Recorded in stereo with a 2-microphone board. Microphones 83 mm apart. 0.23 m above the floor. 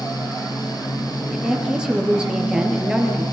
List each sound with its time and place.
1.3 s a woman speaking: 10° right (ahead or behind), 4.5 m